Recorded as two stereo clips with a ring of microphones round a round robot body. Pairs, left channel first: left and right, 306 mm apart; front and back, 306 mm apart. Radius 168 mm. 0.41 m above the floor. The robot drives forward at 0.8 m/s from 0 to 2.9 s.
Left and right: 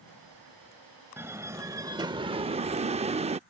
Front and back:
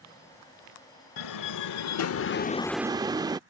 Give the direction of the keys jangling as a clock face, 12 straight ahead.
I don't hear keys jangling.